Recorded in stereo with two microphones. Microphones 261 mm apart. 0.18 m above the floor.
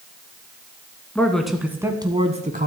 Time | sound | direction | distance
1.1 | a man speaking | 5° left (ahead or behind) | 1.6 m